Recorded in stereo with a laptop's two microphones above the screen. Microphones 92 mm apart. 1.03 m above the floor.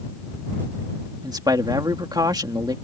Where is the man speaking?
50° right (ahead or behind).